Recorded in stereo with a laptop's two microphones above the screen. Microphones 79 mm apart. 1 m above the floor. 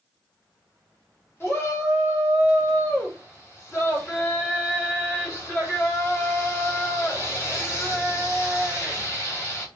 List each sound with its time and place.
1.4 s a shout: 30° left (ahead or behind), 4 m